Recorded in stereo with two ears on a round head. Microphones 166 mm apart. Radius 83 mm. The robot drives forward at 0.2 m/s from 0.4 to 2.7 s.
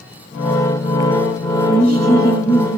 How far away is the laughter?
About 1.6 m.